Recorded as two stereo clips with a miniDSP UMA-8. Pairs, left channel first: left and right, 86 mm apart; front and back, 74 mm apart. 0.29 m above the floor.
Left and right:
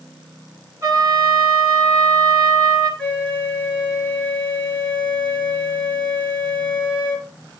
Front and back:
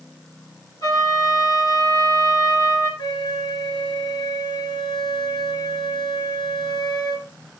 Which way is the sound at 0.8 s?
35° right.